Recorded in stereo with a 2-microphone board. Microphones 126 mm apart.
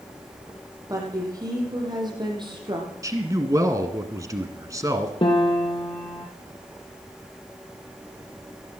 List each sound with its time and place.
0.9 s a woman speaking: 25° right (ahead or behind), 5.5 m; by 2.9 s 40° right (ahead or behind), 5 m
3.0 s a man speaking: 25° right (ahead or behind), 1.6 m
5.2 s a piano: 45° left (ahead or behind), 3 m